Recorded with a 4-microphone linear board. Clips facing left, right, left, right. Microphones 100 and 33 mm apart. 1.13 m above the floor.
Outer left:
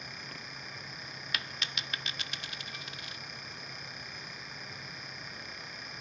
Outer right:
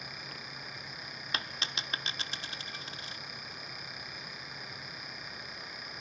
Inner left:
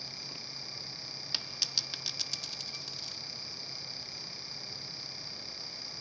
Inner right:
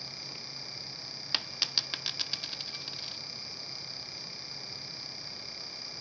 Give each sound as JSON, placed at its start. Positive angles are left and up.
{"t": 1.3, "sound": "a dropped coin", "side_deg": -30, "distance_m": 0.6}